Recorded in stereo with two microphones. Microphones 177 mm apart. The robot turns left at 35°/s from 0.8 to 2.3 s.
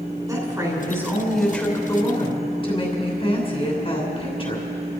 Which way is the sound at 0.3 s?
160° right.